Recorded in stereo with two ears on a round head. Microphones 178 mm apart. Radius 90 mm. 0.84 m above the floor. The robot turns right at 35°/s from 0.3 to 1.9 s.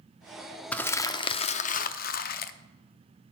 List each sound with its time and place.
0.7 s crumpling: 5° left, 0.5 m; by 2.5 s 50° left, 0.5 m